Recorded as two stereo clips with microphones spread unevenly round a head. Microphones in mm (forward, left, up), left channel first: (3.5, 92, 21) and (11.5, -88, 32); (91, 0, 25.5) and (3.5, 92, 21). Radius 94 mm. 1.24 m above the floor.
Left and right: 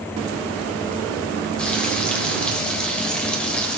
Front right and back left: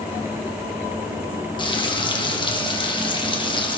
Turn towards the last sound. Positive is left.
turn(degrees=10)